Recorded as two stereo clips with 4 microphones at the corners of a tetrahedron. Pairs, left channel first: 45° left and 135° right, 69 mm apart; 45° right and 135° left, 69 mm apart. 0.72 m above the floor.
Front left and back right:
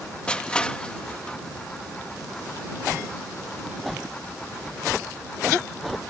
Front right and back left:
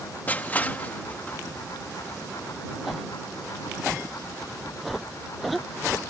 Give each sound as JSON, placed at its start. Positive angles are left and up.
{"t": 0.3, "sound": "crushing", "azimuth_deg": -15}